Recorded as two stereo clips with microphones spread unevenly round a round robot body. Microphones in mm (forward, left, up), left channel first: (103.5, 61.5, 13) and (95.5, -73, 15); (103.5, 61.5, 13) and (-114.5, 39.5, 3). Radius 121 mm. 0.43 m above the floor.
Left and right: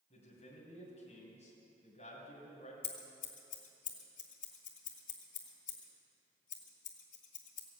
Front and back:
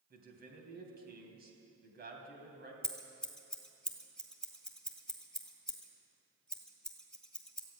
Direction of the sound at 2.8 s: 95° left.